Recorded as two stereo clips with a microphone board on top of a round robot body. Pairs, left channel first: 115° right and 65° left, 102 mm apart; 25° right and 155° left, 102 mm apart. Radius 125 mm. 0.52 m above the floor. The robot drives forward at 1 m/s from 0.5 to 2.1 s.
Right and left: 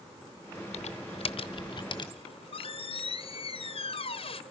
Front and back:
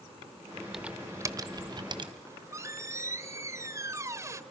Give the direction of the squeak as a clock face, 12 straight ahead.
5 o'clock.